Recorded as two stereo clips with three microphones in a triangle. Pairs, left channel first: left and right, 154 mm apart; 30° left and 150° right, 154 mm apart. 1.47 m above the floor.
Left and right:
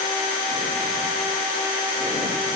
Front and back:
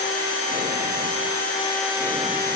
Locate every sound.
Only background noise.